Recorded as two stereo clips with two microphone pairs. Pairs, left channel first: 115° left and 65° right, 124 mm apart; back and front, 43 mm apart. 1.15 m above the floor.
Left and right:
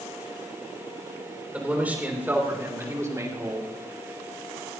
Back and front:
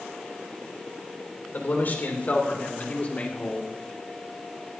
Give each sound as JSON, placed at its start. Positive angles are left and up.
{"t": 1.5, "sound": "a man speaking", "azimuth_deg": -140, "distance_m": 4.0}